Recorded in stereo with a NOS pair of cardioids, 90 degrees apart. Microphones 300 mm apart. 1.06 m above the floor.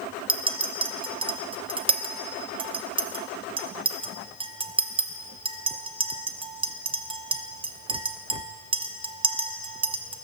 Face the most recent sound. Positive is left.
turn(degrees=-20)